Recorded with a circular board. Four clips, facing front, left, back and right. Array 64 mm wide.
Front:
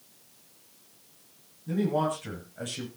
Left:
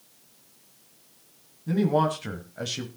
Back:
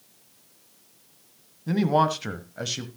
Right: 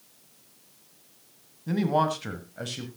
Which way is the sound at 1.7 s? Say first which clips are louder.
Left 1 dB, back 5 dB; 165° right.